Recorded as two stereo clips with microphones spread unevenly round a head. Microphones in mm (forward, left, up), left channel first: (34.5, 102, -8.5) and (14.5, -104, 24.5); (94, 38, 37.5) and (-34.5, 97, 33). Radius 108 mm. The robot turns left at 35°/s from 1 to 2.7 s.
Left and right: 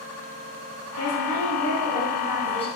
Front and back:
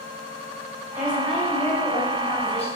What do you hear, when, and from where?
1.0 s a woman speaking: 75° left, 7 m; by 2.7 s 15° left, 7 m